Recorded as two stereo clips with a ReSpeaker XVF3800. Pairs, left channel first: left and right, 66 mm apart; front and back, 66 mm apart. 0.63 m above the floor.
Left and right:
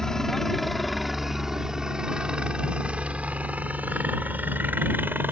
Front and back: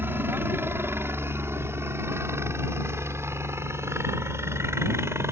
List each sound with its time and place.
0.0 s a helicopter: 165° left; by 5.3 s 140° right